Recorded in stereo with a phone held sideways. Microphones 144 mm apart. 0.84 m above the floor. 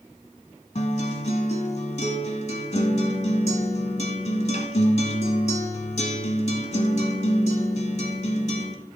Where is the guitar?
55° left (ahead or behind), 1.2 m.